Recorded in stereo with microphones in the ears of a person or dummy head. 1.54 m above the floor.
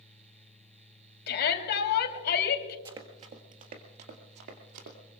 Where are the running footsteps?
25° right (ahead or behind), 1.8 m; by 5.0 s 60° right (ahead or behind), 3 m.